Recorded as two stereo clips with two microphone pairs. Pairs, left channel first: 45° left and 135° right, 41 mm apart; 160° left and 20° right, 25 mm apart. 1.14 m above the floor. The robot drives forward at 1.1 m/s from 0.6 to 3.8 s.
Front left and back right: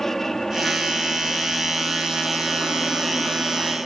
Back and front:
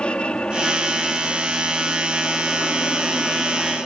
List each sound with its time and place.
0.0 s an aircraft: 125° left; by 3.9 s 130° left